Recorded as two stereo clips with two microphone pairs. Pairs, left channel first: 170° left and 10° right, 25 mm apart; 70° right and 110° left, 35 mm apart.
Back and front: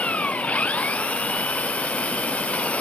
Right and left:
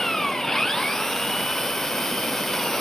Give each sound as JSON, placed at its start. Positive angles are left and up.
{"t": 0.0, "sound": "an engine running", "azimuth_deg": -150}